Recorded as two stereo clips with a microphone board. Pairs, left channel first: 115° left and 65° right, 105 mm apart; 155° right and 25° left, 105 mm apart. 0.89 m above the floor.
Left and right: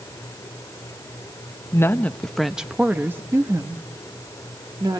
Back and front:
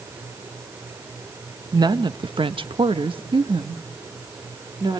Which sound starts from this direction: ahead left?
A woman speaking, at 1.7 s.